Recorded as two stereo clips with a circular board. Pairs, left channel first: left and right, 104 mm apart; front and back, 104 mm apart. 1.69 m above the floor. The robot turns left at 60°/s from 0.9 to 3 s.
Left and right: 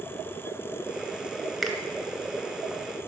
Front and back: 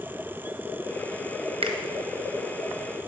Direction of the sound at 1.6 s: Straight behind.